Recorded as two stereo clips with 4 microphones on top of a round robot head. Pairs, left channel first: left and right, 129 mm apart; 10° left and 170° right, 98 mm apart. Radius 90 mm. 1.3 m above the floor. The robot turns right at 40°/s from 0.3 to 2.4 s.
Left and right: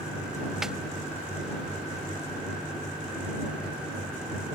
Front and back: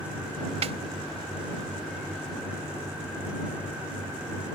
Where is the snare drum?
175° right; by 0.8 s 170° right.